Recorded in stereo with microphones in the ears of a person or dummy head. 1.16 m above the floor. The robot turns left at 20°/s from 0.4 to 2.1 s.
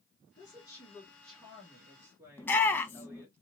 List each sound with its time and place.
0.4 s a woman speaking: 25° left, 1.4 m; by 3.4 s 10° right, 1.4 m
2.4 s a shout: 15° left (ahead or behind), 0.7 m